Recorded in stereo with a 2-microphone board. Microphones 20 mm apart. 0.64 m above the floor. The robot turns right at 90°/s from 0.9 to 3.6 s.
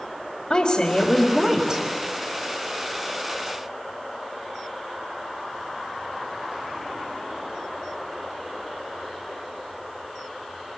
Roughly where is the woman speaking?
Behind left.